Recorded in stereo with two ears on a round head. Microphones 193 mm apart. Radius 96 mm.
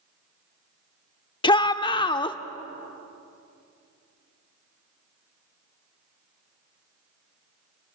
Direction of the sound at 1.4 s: 20° left (ahead or behind).